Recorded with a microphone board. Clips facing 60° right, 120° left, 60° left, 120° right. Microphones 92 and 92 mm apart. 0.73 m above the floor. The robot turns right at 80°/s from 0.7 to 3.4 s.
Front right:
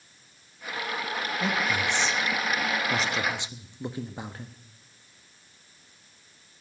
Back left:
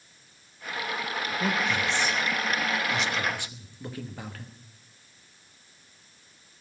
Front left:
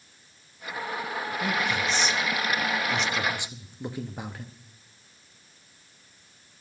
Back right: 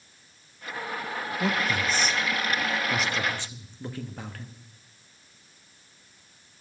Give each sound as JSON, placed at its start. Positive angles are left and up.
{"t": 1.4, "sound": "a man speaking", "azimuth_deg": -165, "distance_m": 1.0}